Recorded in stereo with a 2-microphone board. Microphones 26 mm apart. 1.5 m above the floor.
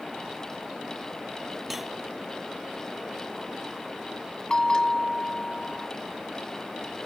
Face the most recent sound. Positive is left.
turn(degrees=30)  # may be behind; listen again after turning